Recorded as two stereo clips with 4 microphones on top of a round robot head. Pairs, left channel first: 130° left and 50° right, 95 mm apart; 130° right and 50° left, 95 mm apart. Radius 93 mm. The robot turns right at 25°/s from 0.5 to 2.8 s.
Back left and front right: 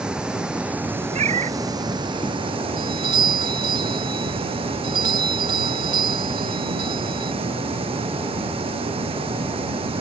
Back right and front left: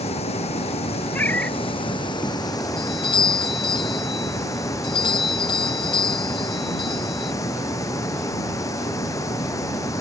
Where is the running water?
130° right; by 10.0 s 75° right.